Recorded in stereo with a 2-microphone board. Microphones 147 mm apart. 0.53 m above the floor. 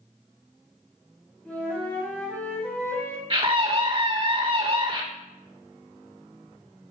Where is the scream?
40° right (ahead or behind), 1.8 m.